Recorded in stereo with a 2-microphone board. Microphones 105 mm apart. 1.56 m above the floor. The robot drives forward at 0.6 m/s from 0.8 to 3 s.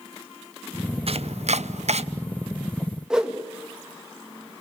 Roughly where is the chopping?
Right.